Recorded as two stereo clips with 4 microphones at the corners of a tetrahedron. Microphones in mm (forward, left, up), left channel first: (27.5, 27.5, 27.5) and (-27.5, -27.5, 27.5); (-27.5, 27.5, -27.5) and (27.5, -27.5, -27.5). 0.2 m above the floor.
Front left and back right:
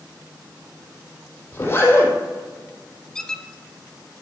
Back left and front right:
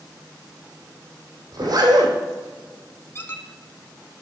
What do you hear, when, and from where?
1.5 s a zipper: 10° right, 3.5 m
3.1 s a squeak: 120° left, 0.7 m